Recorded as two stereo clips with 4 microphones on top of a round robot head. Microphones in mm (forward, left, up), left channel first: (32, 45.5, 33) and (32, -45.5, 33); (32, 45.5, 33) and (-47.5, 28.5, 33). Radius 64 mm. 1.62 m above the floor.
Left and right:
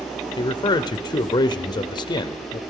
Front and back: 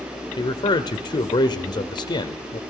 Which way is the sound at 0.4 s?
45° left.